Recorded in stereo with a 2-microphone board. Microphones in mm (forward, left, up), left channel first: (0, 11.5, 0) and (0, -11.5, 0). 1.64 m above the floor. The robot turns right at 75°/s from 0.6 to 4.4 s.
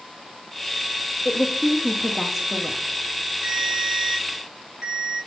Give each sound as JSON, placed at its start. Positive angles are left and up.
{"t": 1.2, "sound": "a woman speaking", "azimuth_deg": 110, "distance_m": 0.7}
{"t": 3.4, "sound": "a ringtone", "azimuth_deg": -100, "distance_m": 4.0}